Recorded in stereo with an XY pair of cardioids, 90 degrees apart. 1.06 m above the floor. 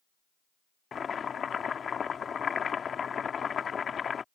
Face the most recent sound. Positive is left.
turn(degrees=50)